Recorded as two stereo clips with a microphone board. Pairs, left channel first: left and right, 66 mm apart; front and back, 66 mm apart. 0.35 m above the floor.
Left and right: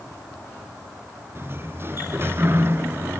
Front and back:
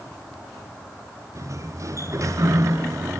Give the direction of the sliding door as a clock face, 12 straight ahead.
5 o'clock.